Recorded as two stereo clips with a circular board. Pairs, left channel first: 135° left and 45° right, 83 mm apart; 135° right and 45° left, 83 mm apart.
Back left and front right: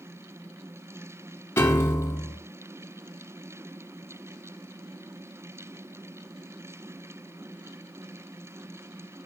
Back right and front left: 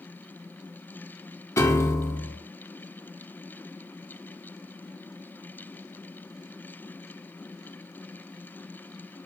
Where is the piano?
175° right, 1.7 m.